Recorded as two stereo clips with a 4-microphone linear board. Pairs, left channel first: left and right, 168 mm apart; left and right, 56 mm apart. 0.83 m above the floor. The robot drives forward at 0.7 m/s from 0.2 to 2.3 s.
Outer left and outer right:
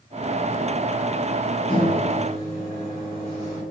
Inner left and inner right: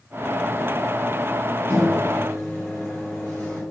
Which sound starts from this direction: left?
A microwave, at 1.7 s.